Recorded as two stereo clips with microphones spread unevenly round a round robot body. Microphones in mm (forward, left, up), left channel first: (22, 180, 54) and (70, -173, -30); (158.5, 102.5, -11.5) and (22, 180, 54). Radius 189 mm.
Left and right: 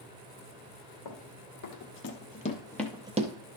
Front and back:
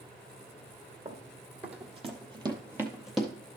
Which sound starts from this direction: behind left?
Running footsteps, at 1.1 s.